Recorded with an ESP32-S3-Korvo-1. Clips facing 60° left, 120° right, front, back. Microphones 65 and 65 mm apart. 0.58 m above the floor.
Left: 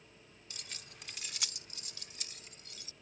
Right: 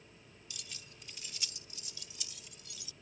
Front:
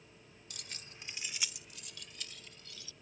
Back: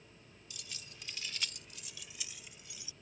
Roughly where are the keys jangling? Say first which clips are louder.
Left 2 dB, front 1 dB; ahead.